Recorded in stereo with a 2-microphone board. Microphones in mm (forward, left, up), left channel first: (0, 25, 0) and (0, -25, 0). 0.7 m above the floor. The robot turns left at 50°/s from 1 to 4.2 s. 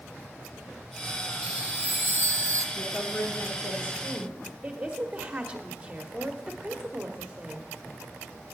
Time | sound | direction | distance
1.4 | a chime | 20° right | 0.6 m
2.8 | a woman speaking | 110° left | 1.8 m
4.6 | a woman speaking | 20° right (ahead or behind) | 1.3 m